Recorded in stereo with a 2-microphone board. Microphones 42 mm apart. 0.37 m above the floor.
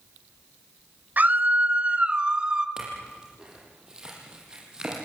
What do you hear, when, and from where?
1.2 s a scream: 45° right (ahead or behind), 1.7 m; by 2.7 s 20° right (ahead or behind), 2 m
2.8 s a clink: 20° right (ahead or behind), 7.5 m